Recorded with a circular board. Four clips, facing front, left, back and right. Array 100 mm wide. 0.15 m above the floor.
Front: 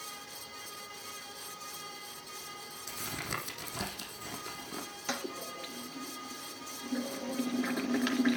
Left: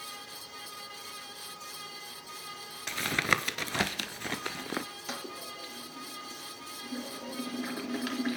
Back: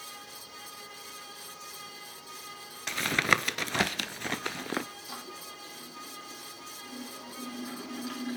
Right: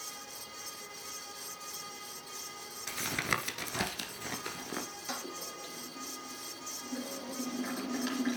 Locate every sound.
2.9 s tapping: 155° left, 1.0 m
5.1 s a toilet flushing: 15° left, 2.5 m